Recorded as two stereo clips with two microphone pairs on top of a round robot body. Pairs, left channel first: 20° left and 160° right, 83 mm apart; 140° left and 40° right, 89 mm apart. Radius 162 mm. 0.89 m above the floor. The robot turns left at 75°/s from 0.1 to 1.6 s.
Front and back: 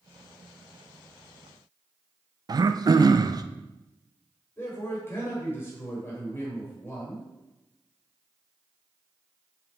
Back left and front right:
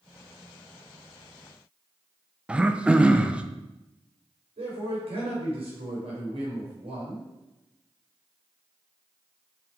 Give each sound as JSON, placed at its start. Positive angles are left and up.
{"t": 2.5, "sound": "throat clearing", "azimuth_deg": -115, "distance_m": 0.5}
{"t": 4.6, "sound": "a man speaking", "azimuth_deg": -45, "distance_m": 3.0}